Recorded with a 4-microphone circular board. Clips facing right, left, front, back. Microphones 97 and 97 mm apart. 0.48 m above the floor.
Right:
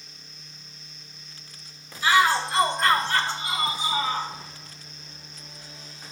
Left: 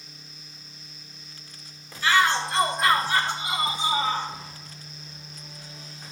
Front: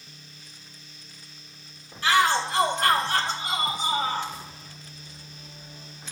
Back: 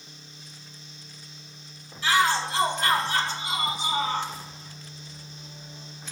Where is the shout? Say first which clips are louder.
Right 1 dB, front 1 dB; 20° right, 1.7 m; by 4.3 s 40° left, 2 m.